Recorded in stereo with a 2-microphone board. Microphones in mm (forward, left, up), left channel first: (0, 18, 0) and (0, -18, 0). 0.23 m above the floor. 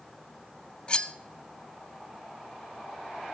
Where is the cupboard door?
I don't hear a cupboard door.